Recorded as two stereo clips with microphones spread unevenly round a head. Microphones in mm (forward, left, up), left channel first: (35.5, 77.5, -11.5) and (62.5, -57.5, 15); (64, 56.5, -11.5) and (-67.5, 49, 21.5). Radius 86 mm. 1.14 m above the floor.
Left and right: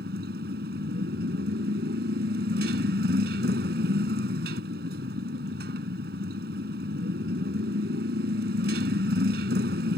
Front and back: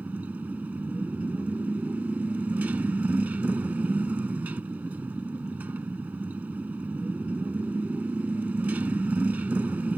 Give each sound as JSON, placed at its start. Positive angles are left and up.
{"t": 0.0, "sound": "a motorcycle", "azimuth_deg": -95}